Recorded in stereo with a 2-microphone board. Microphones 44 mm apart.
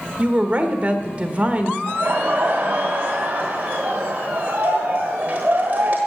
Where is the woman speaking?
30° right (ahead or behind), 1.4 m.